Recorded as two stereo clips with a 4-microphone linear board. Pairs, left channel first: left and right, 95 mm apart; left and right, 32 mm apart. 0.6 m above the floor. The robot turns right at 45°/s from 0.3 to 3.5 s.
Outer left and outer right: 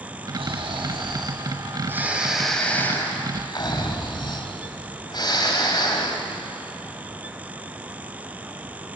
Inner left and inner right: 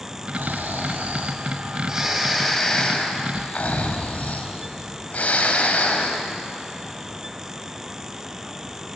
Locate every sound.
0.3 s snoring: 90° right, 3 m; by 6.2 s 50° left, 3 m